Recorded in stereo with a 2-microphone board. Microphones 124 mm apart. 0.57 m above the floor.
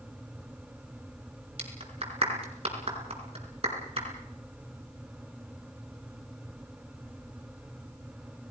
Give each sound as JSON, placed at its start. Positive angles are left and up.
{"t": 1.6, "sound": "a clap", "side_deg": -50, "distance_m": 5.0}